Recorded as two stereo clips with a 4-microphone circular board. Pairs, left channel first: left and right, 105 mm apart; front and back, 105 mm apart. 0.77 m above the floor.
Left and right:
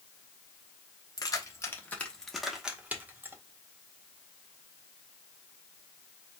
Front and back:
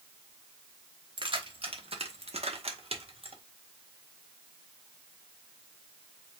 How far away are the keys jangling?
About 1.1 m.